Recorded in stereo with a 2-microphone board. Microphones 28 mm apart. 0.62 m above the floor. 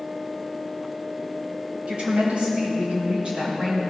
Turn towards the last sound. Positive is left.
turn(degrees=-35)  # may be behind; listen again after turning